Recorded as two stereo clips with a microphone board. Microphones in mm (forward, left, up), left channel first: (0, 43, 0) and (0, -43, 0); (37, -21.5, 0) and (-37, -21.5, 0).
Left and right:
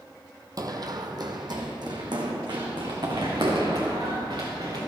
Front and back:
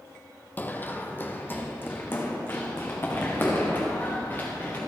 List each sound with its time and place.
0.6 s running footsteps: 60° right, 1.0 m